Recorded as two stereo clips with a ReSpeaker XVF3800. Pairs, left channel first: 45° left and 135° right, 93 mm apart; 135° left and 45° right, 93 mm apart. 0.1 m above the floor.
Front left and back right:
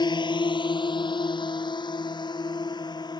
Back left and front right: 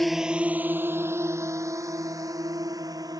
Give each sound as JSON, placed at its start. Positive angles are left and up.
{"t": 0.0, "sound": "a drone", "azimuth_deg": 45}